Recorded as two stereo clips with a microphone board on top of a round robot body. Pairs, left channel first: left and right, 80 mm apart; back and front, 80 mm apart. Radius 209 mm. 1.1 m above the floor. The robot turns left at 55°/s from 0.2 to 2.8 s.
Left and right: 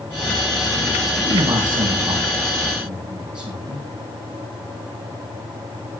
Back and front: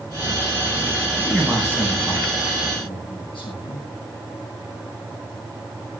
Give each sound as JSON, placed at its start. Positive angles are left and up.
{"t": 1.2, "sound": "a man speaking", "azimuth_deg": -85, "distance_m": 9.0}